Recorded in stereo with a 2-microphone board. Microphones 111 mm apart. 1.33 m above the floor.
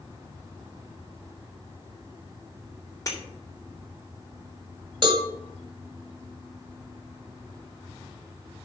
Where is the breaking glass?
25° left (ahead or behind), 3 m.